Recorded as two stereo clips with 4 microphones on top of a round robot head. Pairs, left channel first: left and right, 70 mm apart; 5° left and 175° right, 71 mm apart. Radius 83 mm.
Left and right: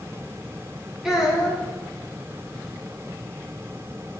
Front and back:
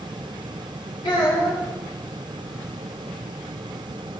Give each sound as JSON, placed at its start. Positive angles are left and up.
{"t": 1.0, "sound": "a child speaking", "azimuth_deg": -5, "distance_m": 3.0}